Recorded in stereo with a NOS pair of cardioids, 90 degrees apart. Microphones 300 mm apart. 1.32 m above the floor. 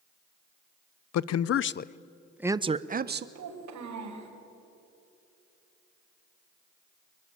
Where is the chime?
No chime in this recording.